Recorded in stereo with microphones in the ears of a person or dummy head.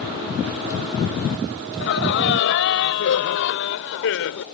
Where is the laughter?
60° left (ahead or behind); by 4.5 s 65° left (ahead or behind).